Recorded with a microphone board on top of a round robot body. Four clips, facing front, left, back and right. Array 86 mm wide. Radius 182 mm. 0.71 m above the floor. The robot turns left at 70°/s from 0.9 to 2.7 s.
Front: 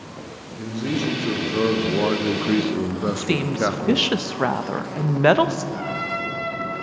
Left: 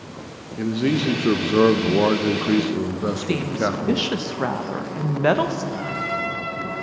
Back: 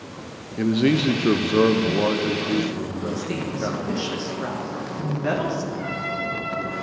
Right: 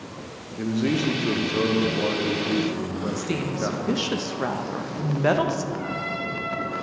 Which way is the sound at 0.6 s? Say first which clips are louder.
Left 2 dB, back 6 dB; 160° left.